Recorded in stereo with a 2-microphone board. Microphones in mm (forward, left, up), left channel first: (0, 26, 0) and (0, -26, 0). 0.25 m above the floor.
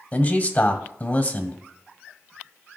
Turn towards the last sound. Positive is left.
turn(degrees=30)  # may be behind; listen again after turning